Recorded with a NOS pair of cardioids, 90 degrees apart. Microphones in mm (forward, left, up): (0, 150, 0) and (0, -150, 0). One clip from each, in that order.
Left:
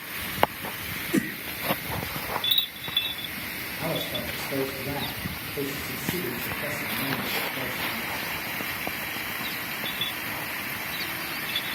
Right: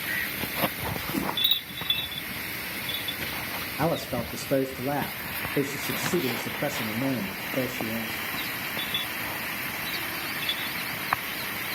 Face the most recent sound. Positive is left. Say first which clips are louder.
# right 2 dB
turn(degrees=-60)